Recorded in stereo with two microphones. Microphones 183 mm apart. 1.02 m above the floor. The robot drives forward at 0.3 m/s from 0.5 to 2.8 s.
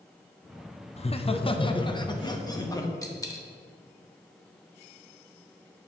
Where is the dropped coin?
20° left (ahead or behind), 0.8 m.